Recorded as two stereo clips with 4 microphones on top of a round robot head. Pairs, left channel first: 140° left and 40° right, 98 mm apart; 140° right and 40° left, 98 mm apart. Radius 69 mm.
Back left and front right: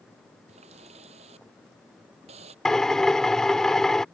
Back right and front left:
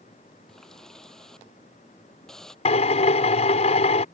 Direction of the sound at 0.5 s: 55° right.